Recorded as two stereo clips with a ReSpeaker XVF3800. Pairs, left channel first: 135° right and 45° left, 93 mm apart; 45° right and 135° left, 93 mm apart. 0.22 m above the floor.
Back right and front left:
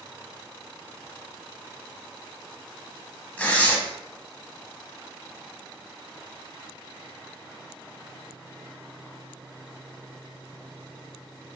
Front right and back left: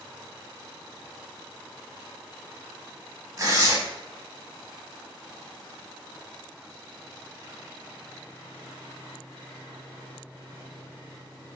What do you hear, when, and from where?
3.4 s tearing paper: 160° left, 0.5 m